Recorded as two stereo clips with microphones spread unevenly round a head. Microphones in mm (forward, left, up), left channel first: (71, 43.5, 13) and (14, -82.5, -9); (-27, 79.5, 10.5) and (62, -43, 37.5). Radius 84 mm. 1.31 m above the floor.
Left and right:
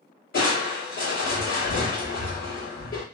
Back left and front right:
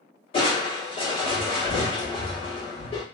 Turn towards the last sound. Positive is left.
turn(degrees=70)